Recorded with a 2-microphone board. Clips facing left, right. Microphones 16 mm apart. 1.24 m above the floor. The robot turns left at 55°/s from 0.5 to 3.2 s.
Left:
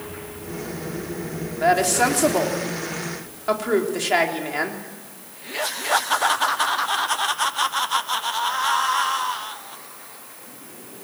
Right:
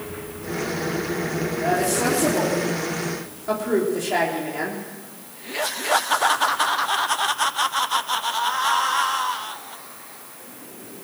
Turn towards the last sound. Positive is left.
turn(degrees=40)